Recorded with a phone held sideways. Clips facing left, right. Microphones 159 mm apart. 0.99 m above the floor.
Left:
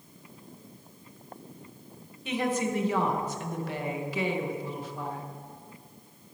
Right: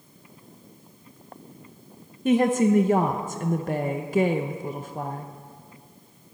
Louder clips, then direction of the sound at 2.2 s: Right 9 dB; 45° right (ahead or behind).